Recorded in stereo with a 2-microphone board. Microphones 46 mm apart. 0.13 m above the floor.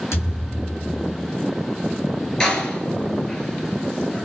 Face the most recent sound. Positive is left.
turn(degrees=15)  # may be behind; listen again after turning